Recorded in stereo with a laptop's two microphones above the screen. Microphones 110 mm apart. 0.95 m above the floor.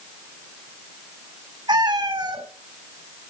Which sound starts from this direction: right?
A cat meowing, at 1.7 s.